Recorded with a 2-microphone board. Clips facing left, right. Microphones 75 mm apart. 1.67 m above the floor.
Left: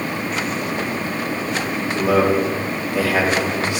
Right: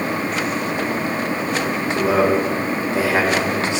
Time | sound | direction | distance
1.9 | a man speaking | 30° right (ahead or behind) | 5.5 m